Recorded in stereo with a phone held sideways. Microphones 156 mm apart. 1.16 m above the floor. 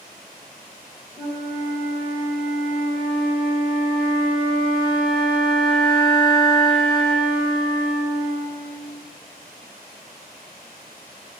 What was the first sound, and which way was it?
A flute, 35° right (ahead or behind).